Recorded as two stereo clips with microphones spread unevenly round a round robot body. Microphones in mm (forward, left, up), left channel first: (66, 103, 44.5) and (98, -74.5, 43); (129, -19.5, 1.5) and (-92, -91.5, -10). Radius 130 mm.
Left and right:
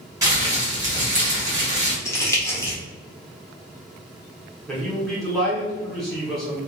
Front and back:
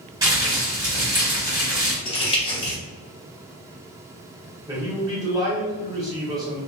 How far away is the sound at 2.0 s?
About 1.2 m.